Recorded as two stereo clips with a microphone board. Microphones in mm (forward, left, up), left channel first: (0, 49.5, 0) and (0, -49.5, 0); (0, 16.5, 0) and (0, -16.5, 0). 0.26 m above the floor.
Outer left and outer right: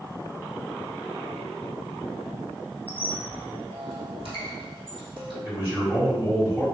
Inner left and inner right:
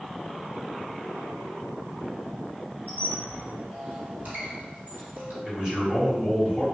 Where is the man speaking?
25° right (ahead or behind), 1.6 m.